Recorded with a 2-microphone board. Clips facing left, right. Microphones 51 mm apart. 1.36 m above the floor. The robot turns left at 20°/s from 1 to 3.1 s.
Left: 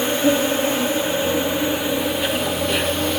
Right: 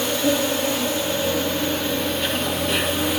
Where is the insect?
30° left, 3.5 m; by 3.2 s 10° right, 3.5 m.